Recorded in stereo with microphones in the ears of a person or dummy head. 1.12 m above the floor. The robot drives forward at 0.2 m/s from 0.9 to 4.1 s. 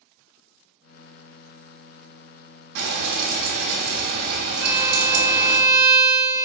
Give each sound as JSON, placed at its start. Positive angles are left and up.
{"t": 2.8, "sound": "frying", "side_deg": -60, "distance_m": 0.9}
{"t": 4.6, "sound": "a violin", "side_deg": -55, "distance_m": 0.8}